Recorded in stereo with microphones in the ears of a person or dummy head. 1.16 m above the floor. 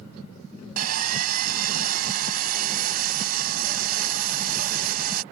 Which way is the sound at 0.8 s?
50° right (ahead or behind).